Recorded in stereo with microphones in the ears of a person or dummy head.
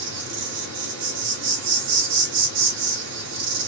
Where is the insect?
65° right (ahead or behind), 1.7 m.